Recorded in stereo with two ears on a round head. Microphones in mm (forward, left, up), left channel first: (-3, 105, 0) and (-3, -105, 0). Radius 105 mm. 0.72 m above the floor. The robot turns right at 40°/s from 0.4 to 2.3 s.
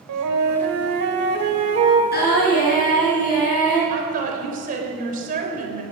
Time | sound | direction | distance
0.1 | a flute | 85° right | 1.8 m
2.1 | singing | 45° left (ahead or behind) | 5 m
3.9 | a woman speaking | 35° right (ahead or behind) | 3.5 m